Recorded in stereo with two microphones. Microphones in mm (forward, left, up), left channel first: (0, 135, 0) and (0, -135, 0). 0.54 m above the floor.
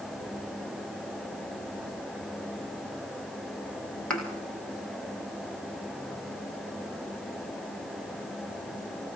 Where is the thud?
5° left (ahead or behind), 9 m.